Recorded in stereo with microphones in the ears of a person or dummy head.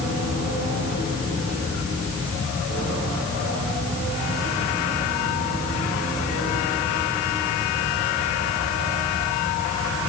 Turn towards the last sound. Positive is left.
No sound to turn to.